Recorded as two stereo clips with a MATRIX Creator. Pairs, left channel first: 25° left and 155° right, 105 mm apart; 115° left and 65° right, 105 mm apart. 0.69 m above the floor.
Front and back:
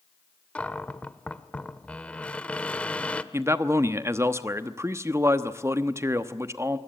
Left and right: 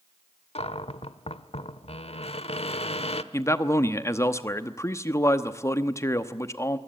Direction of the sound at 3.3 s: 155° left.